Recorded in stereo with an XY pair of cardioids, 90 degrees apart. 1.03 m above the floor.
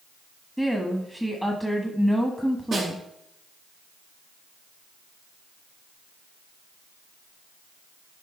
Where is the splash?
No splash in this recording.